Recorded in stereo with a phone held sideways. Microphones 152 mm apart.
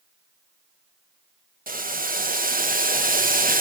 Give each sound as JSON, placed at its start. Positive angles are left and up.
{"t": 1.7, "sound": "boiling", "side_deg": -70, "distance_m": 1.1}